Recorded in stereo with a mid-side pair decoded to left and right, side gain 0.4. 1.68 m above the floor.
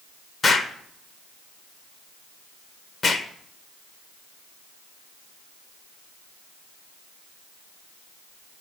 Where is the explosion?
50° left, 1.4 m.